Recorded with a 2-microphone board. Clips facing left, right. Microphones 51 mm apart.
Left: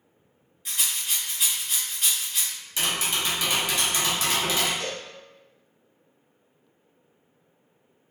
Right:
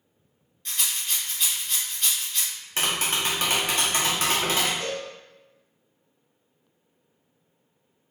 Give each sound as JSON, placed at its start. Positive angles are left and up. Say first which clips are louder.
{"t": 0.7, "sound": "a rattle", "louder": "even", "side_deg": 5, "distance_m": 1.3}
{"t": 2.8, "sound": "tapping", "louder": "right 1 dB", "side_deg": -45, "distance_m": 0.8}
{"t": 4.8, "sound": "a cowbell", "louder": "right 2 dB", "side_deg": -15, "distance_m": 0.7}